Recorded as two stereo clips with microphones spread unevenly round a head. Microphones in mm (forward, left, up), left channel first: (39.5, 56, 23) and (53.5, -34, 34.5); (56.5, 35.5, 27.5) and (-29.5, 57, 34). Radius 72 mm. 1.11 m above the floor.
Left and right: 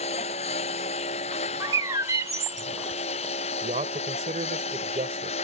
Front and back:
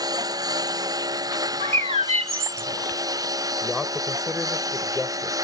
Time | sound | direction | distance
0.0 | a lawn mower | 120° left | ?
1.6 | a bird | 150° right | ?
3.6 | a man speaking | 105° right | ?